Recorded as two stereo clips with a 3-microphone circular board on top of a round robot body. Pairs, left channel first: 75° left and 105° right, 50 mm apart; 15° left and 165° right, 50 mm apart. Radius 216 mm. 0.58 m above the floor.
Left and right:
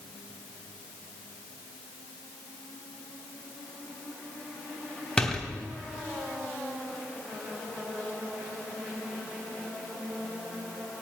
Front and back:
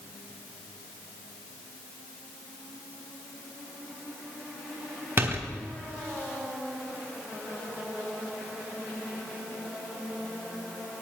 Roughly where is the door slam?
Behind left.